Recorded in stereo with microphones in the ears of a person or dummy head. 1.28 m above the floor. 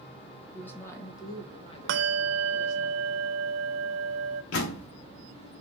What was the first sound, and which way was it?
A woman speaking, 10° left (ahead or behind).